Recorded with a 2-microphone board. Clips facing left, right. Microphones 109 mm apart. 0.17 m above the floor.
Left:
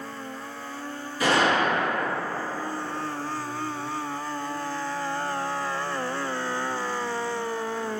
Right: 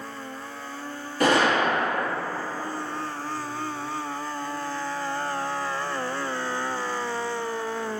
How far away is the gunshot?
About 1.3 m.